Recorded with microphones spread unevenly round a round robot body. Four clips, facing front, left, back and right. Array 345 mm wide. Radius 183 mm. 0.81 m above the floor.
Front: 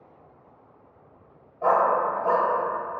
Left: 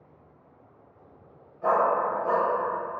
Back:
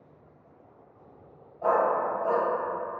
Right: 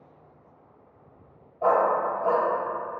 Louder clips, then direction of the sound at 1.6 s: Right 1 dB, front 3 dB; 55° right.